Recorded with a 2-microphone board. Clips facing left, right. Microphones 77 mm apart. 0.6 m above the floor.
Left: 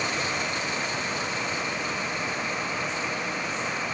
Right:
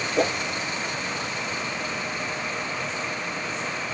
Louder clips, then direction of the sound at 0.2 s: Right 6 dB; 65° right (ahead or behind).